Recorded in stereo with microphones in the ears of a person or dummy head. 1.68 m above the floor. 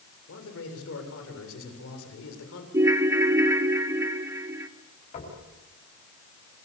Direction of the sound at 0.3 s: 80° left.